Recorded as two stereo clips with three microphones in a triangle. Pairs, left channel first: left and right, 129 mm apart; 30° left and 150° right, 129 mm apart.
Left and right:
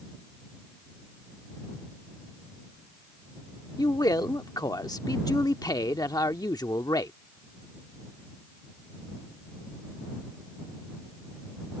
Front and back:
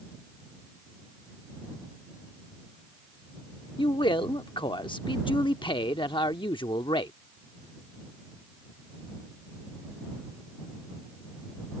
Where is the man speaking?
50° left.